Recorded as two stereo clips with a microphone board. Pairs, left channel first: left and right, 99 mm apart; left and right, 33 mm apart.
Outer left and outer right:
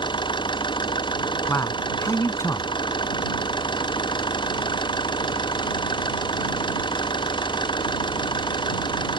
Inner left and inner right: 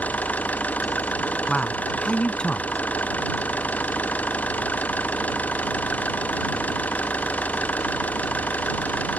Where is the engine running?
55° left (ahead or behind).